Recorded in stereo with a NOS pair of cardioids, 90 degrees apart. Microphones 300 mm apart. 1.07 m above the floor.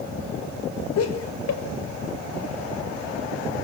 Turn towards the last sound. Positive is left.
turn(degrees=55)